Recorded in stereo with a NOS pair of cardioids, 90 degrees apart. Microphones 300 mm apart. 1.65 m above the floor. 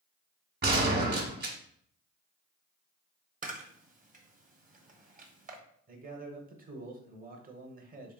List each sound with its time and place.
0.6 s a gunshot: 35° right, 1.4 m
3.4 s a camera shutter: 25° right, 1.0 m
5.9 s a man speaking: 30° right, 1.1 m